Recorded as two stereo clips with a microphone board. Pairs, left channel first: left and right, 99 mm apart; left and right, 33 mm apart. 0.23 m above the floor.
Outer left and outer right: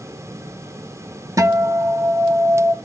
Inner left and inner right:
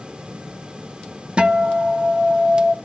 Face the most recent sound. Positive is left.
turn(degrees=-35)  # may be behind; listen again after turning